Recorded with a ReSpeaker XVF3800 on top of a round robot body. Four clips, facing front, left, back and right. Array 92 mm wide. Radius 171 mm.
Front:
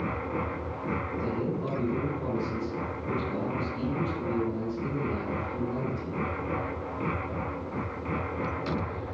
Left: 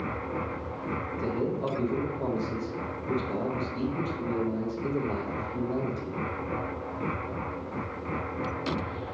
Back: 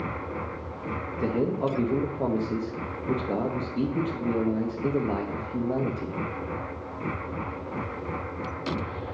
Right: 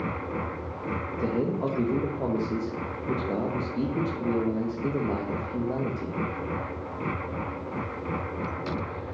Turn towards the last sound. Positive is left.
turn(degrees=-150)